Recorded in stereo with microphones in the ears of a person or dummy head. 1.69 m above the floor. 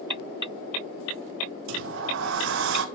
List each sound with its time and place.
1.7 s a sliding door: 70° right (ahead or behind), 1.1 m